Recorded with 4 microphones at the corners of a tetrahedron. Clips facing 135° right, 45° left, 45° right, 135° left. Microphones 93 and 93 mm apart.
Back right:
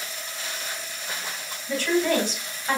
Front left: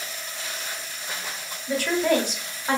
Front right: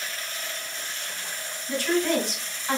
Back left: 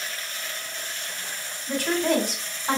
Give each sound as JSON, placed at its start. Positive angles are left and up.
{"t": 1.7, "sound": "a woman speaking", "azimuth_deg": 120, "distance_m": 1.8}